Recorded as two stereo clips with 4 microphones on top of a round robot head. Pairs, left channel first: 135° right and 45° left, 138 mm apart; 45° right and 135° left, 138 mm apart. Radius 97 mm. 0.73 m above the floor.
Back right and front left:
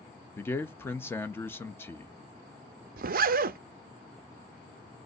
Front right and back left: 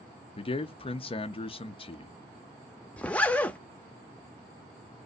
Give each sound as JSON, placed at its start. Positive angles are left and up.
{"t": 0.4, "sound": "a man speaking", "azimuth_deg": -65, "distance_m": 0.6}
{"t": 3.0, "sound": "a zipper", "azimuth_deg": 35, "distance_m": 0.5}